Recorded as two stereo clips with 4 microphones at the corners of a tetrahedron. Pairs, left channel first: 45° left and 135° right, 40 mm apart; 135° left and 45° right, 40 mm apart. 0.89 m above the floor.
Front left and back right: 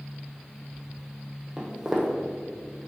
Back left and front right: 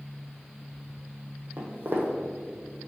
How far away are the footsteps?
About 1.4 m.